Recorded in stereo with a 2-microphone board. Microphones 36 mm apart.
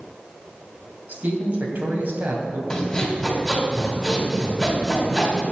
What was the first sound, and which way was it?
A man speaking, 55° right (ahead or behind).